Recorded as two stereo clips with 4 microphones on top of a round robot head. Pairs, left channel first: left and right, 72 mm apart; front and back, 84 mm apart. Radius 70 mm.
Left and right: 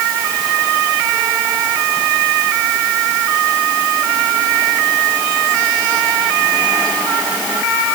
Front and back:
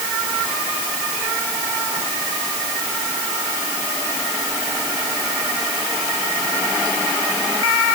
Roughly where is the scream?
I don't hear a scream.